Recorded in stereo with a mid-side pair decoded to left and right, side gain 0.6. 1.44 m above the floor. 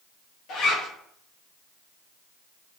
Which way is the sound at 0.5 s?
60° left.